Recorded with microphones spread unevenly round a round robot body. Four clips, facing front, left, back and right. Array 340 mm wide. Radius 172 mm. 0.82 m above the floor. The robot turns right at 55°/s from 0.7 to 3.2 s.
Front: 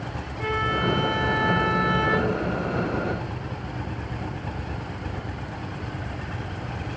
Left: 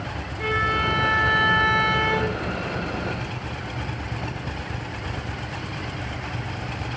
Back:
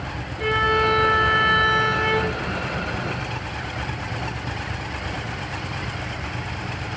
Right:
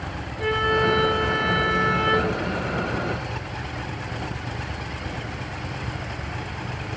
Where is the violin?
20° left, 1.7 m; by 2.4 s 115° left, 1.7 m.